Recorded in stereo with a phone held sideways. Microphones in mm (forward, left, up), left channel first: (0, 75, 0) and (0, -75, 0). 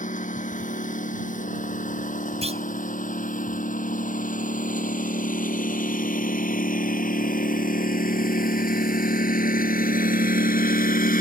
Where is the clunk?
45° right (ahead or behind).